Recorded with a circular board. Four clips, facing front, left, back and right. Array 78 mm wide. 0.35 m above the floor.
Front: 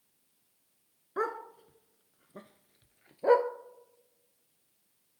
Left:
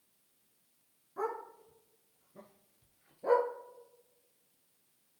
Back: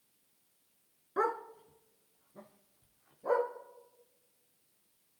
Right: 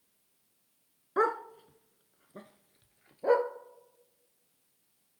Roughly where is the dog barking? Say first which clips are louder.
Right 9 dB, back 1 dB; right.